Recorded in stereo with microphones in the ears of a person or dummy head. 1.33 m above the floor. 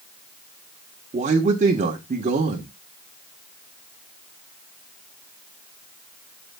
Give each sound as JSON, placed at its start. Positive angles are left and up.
{"t": 1.1, "sound": "a man speaking", "side_deg": -35, "distance_m": 1.3}